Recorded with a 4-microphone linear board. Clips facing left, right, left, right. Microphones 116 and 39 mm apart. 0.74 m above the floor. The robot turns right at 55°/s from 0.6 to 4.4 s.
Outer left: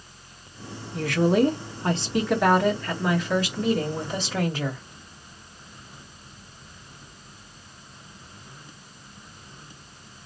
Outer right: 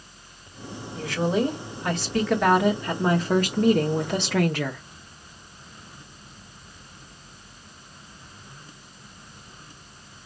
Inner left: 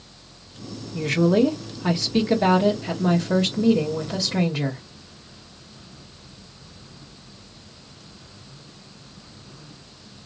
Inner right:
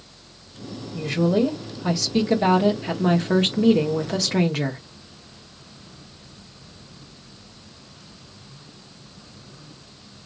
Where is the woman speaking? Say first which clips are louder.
Outer left 4 dB, inner left 2 dB; 95° left, 1.4 m; by 4.8 s 75° right, 1.4 m.